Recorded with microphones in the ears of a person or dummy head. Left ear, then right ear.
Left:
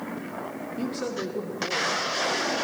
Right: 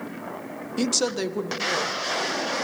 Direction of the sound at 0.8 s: 75° right (ahead or behind).